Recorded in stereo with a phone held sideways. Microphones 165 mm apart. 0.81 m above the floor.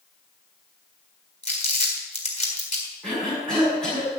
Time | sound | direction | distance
1.4 | crumpling | 35° left (ahead or behind) | 4 m
3.0 | a cough | 5° left (ahead or behind) | 7.5 m